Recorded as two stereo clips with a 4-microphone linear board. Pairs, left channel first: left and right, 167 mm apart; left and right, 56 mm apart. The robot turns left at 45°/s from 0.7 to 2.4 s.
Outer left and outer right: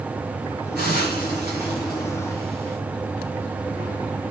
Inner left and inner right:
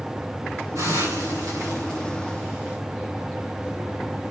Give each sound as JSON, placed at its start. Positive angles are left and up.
{"t": 0.8, "sound": "a hiss", "side_deg": -65, "distance_m": 9.5}